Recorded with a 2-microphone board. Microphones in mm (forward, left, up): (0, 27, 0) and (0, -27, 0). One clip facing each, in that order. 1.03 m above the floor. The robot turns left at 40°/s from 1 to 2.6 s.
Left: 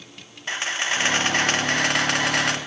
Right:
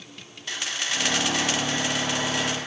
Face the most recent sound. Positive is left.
turn(degrees=80)